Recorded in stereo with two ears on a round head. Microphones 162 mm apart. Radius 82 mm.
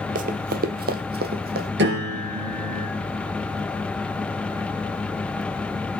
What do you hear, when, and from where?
0.1 s running footsteps: 45° right (ahead or behind), 0.7 m; by 1.7 s 55° right (ahead or behind), 1.6 m
1.8 s a piano: 65° right (ahead or behind), 4.5 m